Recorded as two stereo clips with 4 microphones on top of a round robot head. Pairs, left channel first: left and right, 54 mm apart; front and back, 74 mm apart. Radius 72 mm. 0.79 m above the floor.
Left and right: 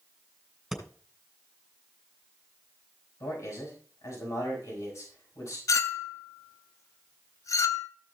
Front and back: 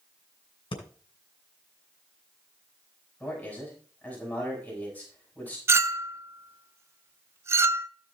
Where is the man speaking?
75° left, 6 m.